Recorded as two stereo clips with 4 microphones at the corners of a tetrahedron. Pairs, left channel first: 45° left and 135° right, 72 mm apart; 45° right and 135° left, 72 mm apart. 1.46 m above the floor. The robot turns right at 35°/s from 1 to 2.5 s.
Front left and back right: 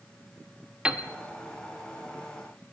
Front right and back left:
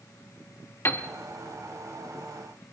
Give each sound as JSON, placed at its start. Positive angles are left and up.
{"t": 0.8, "sound": "a piano", "azimuth_deg": -70, "distance_m": 1.0}